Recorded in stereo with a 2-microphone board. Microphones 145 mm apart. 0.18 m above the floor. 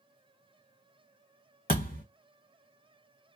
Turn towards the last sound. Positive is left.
turn(degrees=80)